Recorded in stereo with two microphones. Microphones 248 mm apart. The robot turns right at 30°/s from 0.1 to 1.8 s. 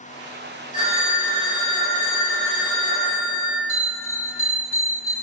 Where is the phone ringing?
85° left, 1.1 m; by 3.6 s 120° left, 1.1 m.